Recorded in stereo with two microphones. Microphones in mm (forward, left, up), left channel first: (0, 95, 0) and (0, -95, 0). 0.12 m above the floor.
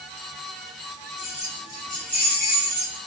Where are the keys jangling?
30° left (ahead or behind), 2 m; by 3.0 s 65° left (ahead or behind), 2.5 m.